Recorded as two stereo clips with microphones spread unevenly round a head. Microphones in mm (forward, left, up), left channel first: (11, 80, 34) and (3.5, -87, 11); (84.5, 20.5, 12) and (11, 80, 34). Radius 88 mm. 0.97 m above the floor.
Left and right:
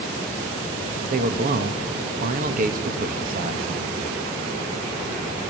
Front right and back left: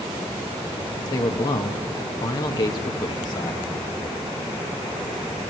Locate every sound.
1.0 s a man speaking: 70° right, 1.5 m